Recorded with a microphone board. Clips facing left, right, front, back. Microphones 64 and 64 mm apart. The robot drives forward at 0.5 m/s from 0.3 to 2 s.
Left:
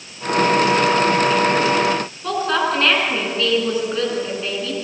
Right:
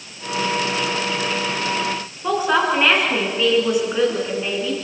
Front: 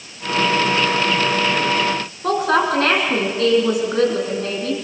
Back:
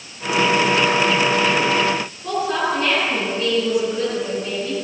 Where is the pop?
No pop in this recording.